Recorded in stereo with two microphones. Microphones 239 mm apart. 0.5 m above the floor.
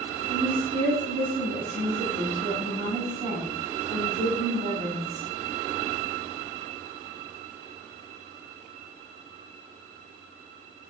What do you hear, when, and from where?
0.3 s a woman speaking: 30° right (ahead or behind), 0.8 m